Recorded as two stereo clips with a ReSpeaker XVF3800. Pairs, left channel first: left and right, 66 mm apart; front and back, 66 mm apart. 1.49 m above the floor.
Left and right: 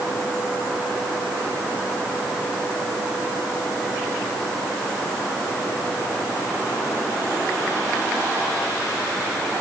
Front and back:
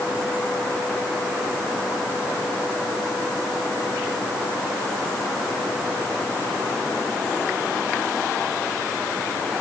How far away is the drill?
No drill in this recording.